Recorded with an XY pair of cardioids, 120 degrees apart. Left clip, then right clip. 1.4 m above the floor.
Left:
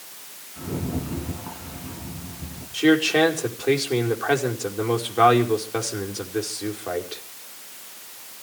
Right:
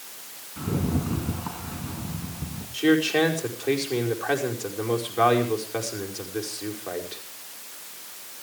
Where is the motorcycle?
I don't hear a motorcycle.